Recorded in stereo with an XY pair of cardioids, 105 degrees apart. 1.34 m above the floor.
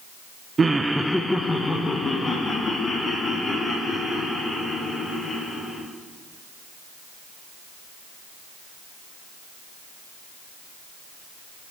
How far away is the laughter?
About 0.6 m.